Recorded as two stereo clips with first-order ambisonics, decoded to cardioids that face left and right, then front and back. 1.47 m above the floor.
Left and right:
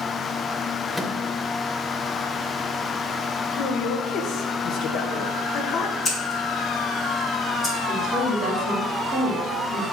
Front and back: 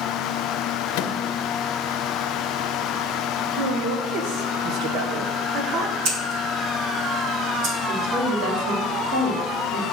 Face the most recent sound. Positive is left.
turn(degrees=-155)